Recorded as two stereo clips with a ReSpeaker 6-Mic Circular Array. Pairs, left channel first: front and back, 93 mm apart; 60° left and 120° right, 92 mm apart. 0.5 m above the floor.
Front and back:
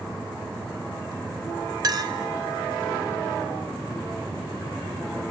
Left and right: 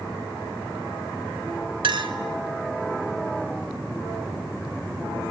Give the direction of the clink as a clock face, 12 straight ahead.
5 o'clock.